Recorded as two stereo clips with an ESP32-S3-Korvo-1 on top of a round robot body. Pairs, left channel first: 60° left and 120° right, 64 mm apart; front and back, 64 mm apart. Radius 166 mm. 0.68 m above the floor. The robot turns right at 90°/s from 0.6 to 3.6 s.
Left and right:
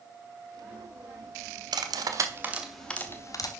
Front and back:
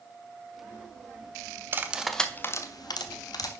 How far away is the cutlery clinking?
About 0.9 m.